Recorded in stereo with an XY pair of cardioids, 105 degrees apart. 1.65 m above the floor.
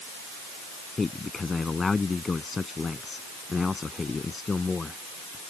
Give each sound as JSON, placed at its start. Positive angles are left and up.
{"t": 1.0, "sound": "a man speaking", "azimuth_deg": 25}